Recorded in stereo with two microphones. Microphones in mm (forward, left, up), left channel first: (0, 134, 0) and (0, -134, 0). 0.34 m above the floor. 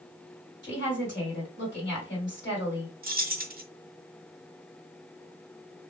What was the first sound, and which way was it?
A woman speaking, 40° left (ahead or behind).